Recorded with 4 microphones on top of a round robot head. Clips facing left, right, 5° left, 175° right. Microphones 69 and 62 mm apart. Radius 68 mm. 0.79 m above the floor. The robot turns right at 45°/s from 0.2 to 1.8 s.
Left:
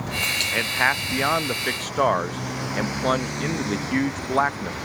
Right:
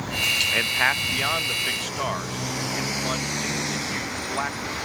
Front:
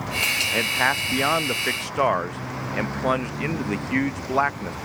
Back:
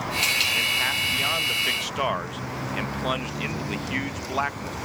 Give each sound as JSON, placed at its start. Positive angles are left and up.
{"t": 0.5, "sound": "a man speaking", "azimuth_deg": 0}